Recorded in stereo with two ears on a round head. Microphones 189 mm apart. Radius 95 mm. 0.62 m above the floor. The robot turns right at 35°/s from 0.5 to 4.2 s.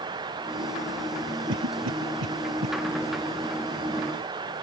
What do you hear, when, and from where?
1.5 s a cough: 65° right (ahead or behind); by 2.7 s 75° right (ahead or behind)